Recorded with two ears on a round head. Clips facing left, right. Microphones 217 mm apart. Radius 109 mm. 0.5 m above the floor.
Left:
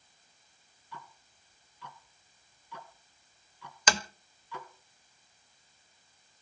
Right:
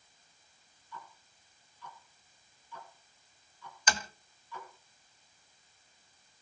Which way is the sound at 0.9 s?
60° left (ahead or behind).